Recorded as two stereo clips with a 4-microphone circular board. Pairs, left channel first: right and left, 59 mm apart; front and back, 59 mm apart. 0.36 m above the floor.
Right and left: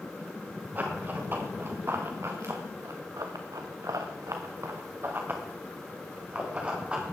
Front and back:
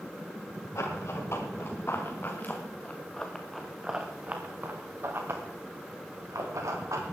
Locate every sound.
0.8 s running footsteps: 30° left, 5 m; by 7.0 s 160° left, 6 m